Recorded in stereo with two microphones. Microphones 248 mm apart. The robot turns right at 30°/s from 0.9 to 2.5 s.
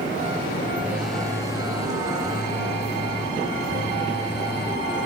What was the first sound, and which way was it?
A phone buzzing, 5° right.